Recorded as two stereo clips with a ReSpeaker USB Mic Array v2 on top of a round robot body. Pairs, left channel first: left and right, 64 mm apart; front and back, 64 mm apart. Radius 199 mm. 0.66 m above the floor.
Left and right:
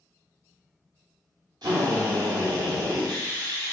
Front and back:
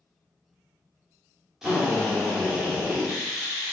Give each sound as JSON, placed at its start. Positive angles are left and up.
{"t": 1.6, "sound": "a drill", "azimuth_deg": -95, "distance_m": 0.7}